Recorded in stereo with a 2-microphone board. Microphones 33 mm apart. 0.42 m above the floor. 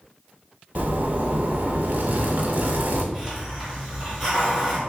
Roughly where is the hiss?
Centre.